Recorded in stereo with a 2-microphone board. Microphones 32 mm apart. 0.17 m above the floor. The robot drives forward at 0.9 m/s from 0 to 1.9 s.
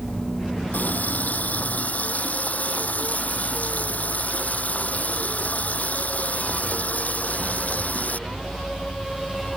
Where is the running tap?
70° left (ahead or behind); by 8.2 s 60° left (ahead or behind).